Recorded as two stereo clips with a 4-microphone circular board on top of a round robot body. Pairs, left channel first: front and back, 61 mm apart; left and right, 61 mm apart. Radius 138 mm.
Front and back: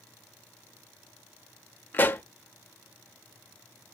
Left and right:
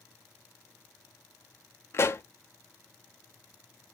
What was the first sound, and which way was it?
A pop, 55° left.